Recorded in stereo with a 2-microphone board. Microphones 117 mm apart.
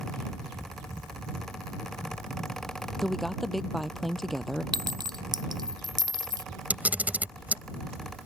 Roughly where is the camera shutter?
Centre.